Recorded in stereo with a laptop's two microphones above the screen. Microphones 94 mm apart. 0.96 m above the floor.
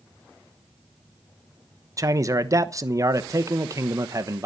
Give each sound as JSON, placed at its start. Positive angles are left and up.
{"t": 2.0, "sound": "a man speaking", "side_deg": -35, "distance_m": 1.0}